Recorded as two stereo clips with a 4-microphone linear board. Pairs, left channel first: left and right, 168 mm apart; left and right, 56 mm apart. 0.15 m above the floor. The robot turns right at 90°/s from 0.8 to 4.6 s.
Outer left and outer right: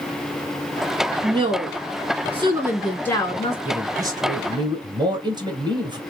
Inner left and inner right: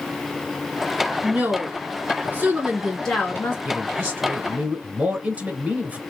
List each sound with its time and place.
1.2 s a woman speaking: 150° right, 1.8 m; by 3.5 s 60° left, 1.8 m
3.6 s a man speaking: 10° right (ahead or behind), 1.1 m; by 6.0 s 25° right (ahead or behind), 1.1 m